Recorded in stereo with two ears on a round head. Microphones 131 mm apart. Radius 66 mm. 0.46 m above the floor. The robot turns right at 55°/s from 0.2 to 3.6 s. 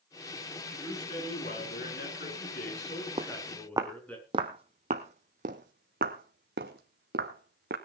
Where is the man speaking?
10° left, 6.5 m; by 4.2 s 170° left, 6.5 m.